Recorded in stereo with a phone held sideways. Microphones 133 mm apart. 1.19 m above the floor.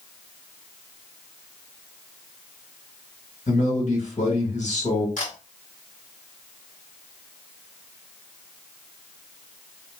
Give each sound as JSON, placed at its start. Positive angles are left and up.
{"t": 3.5, "sound": "a man speaking", "side_deg": 65, "distance_m": 1.5}
{"t": 5.2, "sound": "a camera shutter", "side_deg": 75, "distance_m": 1.6}